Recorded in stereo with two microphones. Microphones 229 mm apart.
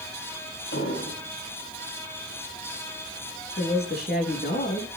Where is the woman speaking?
45° left (ahead or behind), 3 m.